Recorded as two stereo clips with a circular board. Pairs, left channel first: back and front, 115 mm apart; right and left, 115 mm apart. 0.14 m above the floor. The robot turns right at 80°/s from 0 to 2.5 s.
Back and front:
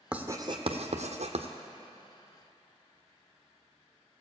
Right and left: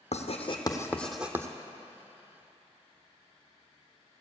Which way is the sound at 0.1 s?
80° right.